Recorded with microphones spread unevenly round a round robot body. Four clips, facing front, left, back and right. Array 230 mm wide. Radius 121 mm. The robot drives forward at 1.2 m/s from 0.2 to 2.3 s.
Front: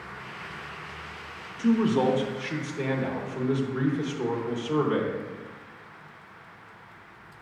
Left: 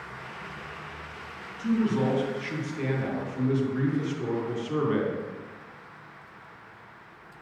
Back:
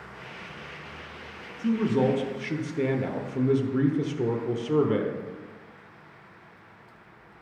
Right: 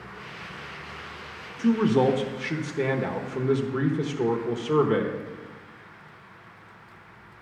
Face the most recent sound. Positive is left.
turn(degrees=-140)